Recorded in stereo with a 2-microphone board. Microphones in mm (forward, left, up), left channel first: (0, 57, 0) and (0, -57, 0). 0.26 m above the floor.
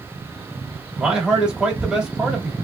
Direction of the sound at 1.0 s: 5° right (ahead or behind).